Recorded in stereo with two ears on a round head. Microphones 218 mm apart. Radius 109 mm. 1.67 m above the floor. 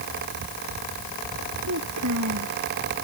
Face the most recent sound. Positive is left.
turn(degrees=-70)  # may be behind; listen again after turning